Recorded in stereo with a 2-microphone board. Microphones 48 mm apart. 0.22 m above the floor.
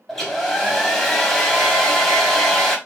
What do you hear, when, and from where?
0.1 s a hair dryer: 5° left (ahead or behind), 0.9 m